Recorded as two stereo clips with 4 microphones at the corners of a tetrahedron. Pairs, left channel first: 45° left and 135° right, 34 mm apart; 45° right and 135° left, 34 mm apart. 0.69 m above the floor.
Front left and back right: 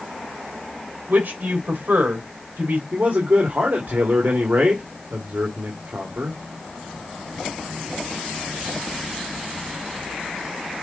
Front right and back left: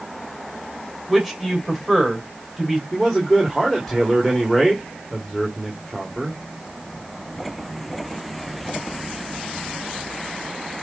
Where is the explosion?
I don't hear an explosion.